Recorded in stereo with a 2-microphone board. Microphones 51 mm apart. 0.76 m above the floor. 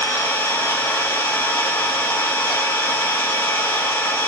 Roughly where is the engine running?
Left.